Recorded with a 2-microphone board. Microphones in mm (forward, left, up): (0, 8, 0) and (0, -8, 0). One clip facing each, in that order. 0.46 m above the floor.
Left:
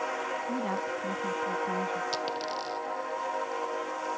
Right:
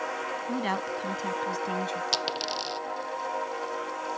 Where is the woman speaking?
65° right (ahead or behind).